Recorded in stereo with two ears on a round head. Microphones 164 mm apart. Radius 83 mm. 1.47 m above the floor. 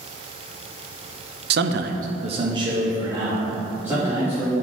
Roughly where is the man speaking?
Right.